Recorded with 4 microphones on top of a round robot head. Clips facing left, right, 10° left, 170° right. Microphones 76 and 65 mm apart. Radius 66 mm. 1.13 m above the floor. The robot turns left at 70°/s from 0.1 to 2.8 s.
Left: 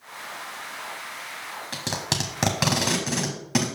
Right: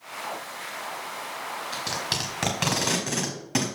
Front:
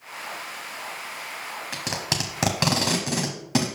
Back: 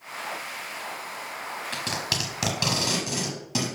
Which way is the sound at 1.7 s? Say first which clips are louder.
Left 5 dB, front 2 dB; 85° left.